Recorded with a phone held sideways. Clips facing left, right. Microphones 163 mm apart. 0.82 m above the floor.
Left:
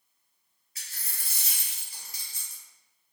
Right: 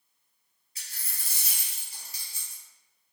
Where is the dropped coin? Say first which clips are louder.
Even; 30° right (ahead or behind), 1.3 m.